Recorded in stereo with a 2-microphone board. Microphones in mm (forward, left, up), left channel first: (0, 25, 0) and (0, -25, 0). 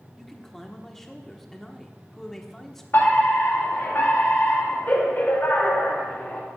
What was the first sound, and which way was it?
A man speaking, 5° left (ahead or behind).